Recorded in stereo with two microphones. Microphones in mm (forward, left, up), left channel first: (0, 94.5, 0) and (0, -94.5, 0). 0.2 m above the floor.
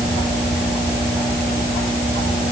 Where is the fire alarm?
No fire alarm in this recording.